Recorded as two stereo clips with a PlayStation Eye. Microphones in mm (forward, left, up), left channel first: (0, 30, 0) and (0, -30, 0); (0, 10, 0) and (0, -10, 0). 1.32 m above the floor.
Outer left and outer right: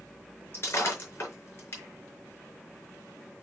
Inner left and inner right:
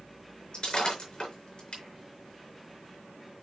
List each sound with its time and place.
0.5 s breaking glass: 40° left (ahead or behind), 4.5 m